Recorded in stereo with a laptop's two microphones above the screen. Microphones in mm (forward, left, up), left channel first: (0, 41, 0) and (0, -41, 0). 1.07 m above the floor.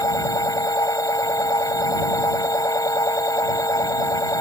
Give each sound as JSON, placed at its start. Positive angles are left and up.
{"t": 0.0, "sound": "a machine running", "side_deg": 45}